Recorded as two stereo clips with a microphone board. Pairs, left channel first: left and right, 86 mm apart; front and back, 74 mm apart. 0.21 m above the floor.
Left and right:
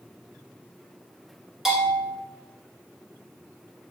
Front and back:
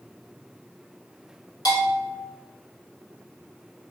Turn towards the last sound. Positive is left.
turn(degrees=-5)